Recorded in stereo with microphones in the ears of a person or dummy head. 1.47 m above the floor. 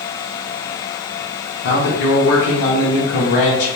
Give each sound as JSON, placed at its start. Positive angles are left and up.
{"t": 1.6, "sound": "a man speaking", "side_deg": 60, "distance_m": 0.7}